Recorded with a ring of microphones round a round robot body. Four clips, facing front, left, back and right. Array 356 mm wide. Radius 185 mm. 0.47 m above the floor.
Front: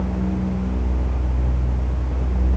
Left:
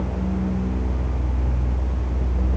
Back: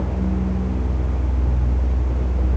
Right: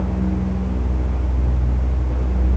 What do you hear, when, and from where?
Only background noise.